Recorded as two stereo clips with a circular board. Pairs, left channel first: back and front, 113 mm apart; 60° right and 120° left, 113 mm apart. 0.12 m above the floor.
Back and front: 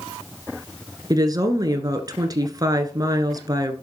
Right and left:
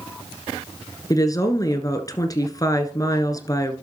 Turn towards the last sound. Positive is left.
turn(degrees=-25)